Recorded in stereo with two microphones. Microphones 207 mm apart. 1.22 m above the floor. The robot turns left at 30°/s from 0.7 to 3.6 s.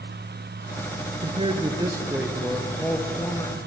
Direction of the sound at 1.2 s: 135° right.